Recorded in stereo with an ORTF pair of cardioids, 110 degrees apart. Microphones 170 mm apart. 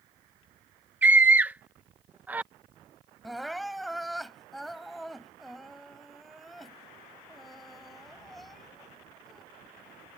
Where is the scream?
10° right.